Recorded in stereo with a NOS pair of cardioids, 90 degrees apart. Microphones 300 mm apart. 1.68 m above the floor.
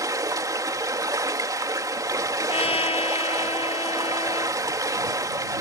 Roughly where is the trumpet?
Ahead.